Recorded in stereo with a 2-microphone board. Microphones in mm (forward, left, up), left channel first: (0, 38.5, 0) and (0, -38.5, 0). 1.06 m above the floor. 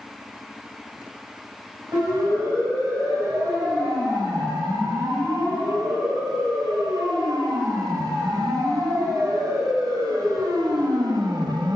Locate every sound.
1.9 s a siren: 50° right (ahead or behind), 7.5 m; by 11.8 s 60° right (ahead or behind), 1.6 m